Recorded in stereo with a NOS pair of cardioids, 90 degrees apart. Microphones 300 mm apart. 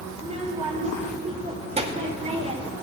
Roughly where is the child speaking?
Ahead.